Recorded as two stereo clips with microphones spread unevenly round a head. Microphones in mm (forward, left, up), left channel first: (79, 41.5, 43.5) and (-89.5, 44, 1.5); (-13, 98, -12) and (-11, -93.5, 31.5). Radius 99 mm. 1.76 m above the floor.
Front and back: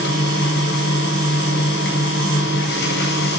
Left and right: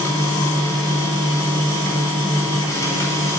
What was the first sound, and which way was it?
A machine running, 10° left.